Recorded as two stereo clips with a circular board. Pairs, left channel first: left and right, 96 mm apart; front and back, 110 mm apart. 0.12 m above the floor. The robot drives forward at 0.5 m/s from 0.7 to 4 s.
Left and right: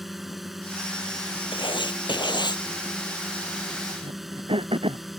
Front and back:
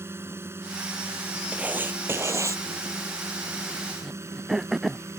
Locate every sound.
0.0 s a drone: 175° right
1.5 s writing: 105° left; by 2.6 s 120° left
4.0 s throat clearing: 90° right